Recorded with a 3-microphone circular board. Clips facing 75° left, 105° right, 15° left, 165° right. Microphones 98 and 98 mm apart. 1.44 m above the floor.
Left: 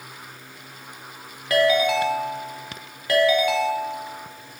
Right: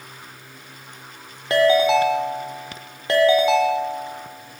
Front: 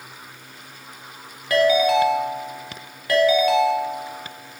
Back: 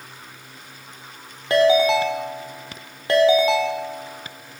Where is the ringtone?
135° right, 0.6 m.